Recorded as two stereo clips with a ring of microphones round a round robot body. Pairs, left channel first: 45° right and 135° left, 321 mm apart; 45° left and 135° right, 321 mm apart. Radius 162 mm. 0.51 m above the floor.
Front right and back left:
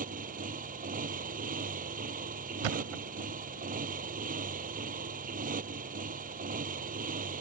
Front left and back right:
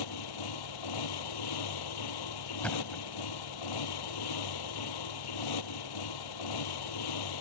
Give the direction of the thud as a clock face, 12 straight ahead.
8 o'clock.